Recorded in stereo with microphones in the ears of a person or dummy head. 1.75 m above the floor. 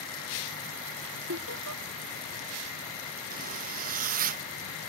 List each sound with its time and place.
1.3 s laughter: 60° right (ahead or behind)
3.3 s a zipper: 45° right (ahead or behind)